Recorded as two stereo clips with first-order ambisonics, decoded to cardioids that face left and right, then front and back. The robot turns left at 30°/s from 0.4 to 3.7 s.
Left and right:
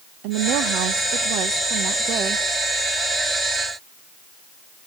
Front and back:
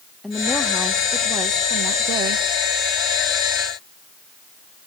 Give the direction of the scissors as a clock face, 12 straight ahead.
No scissors in this recording.